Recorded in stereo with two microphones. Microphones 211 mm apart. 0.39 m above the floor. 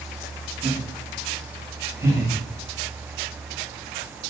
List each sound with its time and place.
0.6 s laughter: 15° right (ahead or behind), 2.5 m